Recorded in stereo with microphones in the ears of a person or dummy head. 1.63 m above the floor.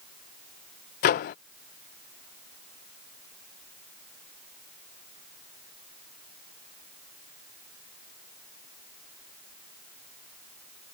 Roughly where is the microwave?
Left.